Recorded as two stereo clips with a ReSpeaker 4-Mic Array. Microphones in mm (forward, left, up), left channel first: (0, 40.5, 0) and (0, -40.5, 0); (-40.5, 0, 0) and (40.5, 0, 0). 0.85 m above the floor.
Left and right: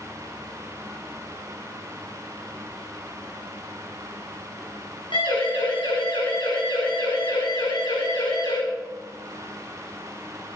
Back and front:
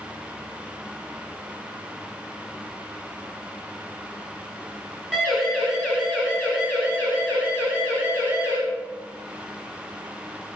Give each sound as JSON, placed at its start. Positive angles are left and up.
{"t": 5.1, "sound": "a siren", "azimuth_deg": 85, "distance_m": 7.5}